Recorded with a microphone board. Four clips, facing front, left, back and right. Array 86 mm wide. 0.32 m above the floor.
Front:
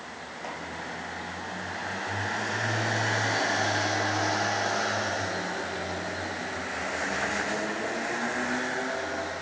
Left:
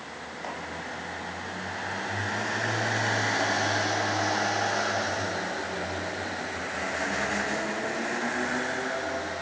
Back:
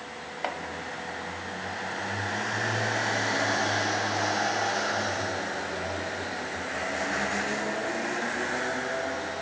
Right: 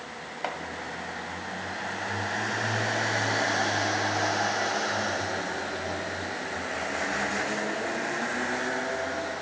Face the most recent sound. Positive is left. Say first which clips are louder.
# right 4 dB, back 6 dB
turn(degrees=-145)